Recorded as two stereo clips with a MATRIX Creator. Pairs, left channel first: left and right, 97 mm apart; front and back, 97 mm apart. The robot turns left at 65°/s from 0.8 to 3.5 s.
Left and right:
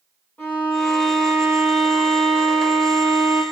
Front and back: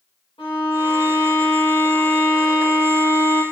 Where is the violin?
20° left, 8 m; by 3.4 s 150° right, 8 m.